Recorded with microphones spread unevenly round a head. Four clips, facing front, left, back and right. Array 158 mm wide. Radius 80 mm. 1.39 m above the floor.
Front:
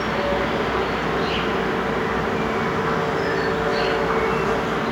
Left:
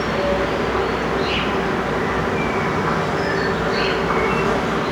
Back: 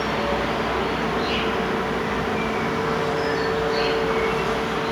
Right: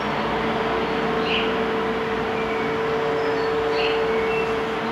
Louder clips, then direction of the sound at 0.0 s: Left 4 dB, front 1 dB; 75° left.